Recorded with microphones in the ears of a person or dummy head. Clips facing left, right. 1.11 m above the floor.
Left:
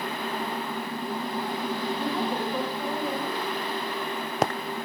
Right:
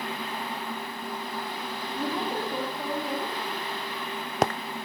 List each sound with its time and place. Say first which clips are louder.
1.9 s a woman speaking: right 3 dB; 30° right (ahead or behind), 3 m